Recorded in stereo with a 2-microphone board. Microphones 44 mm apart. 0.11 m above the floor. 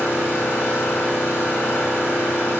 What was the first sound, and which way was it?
An engine running, 75° left (ahead or behind).